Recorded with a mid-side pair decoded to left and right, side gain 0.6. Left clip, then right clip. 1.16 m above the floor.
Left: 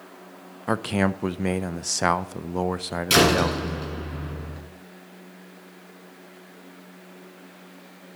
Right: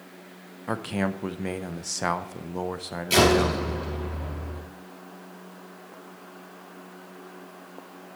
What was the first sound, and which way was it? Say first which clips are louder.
A man speaking: left 5 dB; 30° left.